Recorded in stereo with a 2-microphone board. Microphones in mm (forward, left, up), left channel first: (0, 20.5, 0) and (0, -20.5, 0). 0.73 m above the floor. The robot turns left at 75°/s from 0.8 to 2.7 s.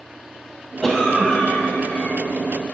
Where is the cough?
170° left, 1.1 m; by 2.2 s 65° left, 1.1 m.